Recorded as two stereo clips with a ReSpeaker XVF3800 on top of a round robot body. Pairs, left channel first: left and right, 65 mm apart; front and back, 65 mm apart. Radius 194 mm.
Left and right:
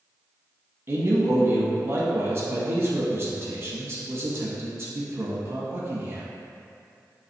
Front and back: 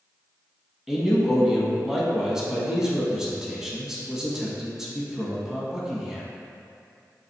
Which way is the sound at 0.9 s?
100° right.